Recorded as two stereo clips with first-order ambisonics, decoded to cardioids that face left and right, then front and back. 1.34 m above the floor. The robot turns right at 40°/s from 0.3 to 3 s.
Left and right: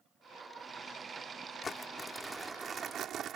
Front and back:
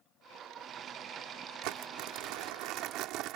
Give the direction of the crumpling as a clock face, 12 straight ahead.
7 o'clock.